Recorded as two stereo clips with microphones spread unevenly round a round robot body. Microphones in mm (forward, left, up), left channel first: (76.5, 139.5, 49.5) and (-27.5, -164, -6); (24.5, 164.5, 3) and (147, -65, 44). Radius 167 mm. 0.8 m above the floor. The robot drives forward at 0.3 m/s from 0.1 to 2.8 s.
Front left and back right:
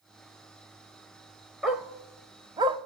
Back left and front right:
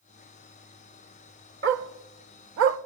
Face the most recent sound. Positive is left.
turn(degrees=-30)